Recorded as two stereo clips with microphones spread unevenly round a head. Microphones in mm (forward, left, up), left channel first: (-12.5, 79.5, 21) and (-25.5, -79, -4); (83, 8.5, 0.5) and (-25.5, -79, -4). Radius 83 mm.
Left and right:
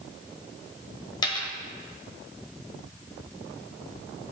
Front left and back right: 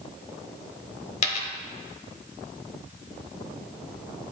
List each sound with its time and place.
1.2 s a dropped coin: 35° left, 0.9 m